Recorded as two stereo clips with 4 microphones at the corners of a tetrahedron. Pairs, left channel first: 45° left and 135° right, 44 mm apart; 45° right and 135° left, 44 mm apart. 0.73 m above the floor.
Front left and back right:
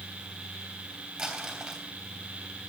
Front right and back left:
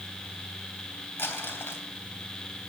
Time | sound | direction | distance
1.2 | crumpling | 55° right | 3 m